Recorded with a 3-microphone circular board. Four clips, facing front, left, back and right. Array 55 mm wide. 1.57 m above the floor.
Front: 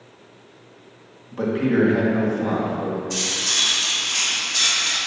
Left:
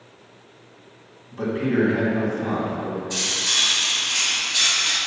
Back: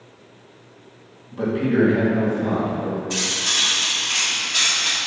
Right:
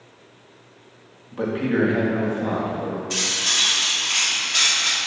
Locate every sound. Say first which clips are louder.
1.3 s a man speaking: even, even; 45° right, 2 m
3.1 s cutlery clinking: right 1 dB, back 1 dB; 115° right, 1.6 m